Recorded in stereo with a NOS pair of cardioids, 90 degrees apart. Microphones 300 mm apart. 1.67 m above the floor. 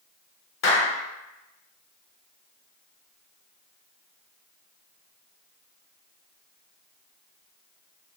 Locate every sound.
0.6 s a clap: 45° left, 0.7 m